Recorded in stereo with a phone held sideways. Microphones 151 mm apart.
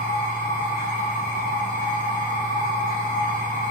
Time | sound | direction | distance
0.0 | a machine running | 80° right | 0.8 m